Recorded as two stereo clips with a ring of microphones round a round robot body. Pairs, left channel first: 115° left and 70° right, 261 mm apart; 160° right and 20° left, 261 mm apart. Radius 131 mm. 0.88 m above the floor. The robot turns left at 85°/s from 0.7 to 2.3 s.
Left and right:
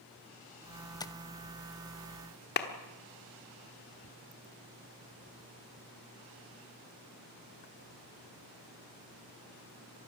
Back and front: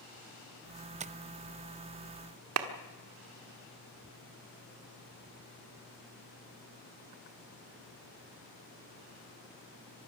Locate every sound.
1.0 s tapping: 55° left, 0.6 m; by 1.1 s 40° left, 0.6 m
2.6 s a clap: 60° left, 1.5 m